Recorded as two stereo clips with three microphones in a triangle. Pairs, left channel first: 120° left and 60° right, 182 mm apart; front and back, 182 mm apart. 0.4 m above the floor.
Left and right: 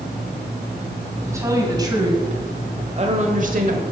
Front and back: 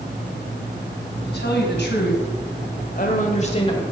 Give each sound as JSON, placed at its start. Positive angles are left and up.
{"t": 1.2, "sound": "a woman speaking", "azimuth_deg": 15, "distance_m": 2.5}